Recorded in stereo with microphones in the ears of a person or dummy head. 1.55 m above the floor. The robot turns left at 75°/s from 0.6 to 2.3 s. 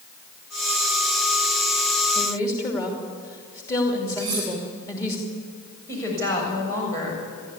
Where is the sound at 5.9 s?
15° left (ahead or behind), 7 m.